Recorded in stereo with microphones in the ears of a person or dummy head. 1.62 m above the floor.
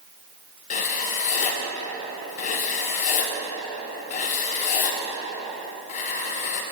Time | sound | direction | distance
0.7 | writing | 40° left (ahead or behind) | 0.7 m